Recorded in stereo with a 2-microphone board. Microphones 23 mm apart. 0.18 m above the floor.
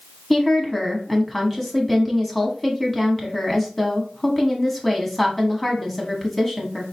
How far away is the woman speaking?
About 1.1 m.